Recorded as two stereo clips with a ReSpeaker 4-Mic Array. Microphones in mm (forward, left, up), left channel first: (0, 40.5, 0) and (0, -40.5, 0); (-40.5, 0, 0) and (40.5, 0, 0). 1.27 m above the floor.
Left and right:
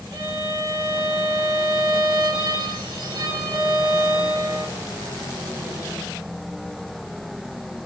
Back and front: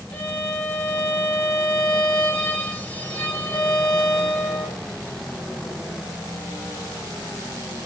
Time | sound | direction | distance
0.1 | a violin | 110° right | 3 m